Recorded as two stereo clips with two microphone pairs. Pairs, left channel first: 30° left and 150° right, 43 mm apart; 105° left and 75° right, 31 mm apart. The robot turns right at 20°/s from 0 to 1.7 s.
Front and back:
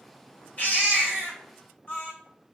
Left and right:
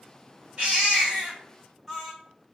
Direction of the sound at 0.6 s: 20° right.